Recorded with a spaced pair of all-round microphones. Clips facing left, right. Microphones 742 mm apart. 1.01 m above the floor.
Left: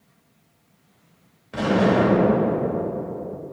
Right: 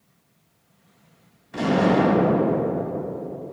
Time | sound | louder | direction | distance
1.5 | an explosion | even | 70° left (ahead or behind) | 3 m